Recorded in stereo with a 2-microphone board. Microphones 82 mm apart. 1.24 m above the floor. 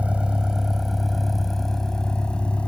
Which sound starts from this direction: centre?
A vehicle, at 0.0 s.